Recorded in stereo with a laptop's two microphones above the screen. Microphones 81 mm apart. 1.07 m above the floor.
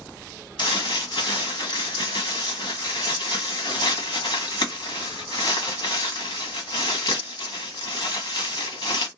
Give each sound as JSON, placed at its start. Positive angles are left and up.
{"t": 0.6, "sound": "crumpling", "side_deg": 70, "distance_m": 1.1}